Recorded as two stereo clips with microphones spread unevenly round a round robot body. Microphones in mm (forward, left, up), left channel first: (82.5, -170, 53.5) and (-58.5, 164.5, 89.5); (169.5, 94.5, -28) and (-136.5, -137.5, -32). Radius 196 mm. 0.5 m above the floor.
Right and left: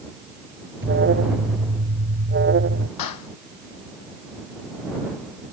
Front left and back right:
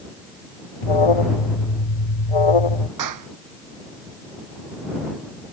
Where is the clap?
100° right.